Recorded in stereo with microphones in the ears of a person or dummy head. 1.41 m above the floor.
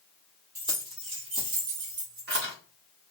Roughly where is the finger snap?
No finger snap in this recording.